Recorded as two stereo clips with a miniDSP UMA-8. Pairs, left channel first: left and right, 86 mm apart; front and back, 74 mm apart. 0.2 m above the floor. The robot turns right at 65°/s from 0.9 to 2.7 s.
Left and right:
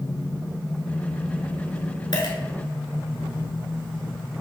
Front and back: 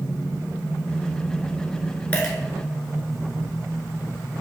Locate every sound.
2.1 s a dropped coin: 65° left, 1.0 m; by 2.4 s 85° left, 1.0 m